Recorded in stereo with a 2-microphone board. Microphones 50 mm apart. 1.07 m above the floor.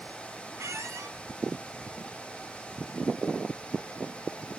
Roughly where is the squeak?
Right.